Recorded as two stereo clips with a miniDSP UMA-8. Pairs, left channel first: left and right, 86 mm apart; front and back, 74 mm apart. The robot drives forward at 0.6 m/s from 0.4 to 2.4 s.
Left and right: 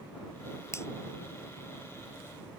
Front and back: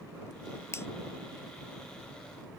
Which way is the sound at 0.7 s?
40° left.